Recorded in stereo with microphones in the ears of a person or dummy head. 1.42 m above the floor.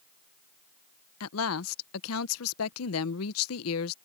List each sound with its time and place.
1.2 s a woman speaking: 85° left